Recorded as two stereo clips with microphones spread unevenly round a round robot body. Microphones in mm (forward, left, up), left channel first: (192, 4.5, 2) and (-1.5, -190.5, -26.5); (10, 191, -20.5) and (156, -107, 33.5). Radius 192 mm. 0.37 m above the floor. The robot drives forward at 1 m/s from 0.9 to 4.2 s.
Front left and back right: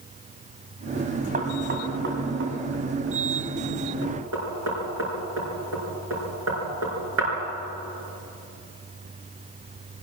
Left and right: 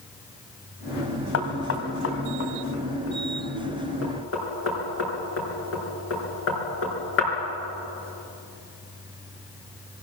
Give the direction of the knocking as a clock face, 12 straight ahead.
7 o'clock.